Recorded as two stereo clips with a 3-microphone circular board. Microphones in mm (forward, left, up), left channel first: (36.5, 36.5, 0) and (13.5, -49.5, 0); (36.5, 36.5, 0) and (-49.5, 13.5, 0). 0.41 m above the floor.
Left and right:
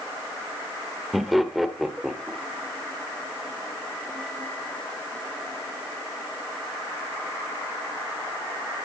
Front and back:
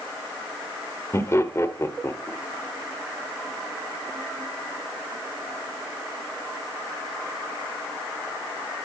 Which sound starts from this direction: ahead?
Laughter, at 1.1 s.